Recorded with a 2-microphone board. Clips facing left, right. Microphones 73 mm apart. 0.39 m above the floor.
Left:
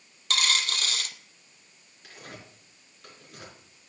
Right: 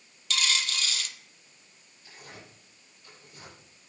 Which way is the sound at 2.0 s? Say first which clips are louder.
Left 3 dB; 65° left (ahead or behind).